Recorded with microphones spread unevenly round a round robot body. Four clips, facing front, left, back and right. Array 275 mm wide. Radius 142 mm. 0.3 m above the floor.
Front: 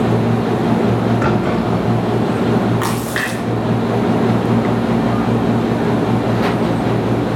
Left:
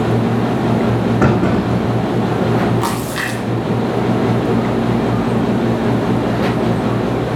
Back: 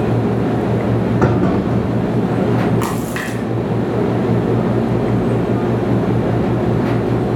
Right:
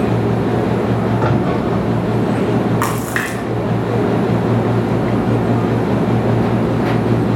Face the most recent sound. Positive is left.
turn(degrees=-150)